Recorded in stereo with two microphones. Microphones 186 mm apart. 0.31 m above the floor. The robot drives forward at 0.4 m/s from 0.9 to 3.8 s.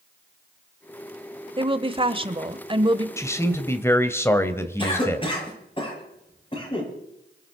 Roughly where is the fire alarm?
I don't hear a fire alarm.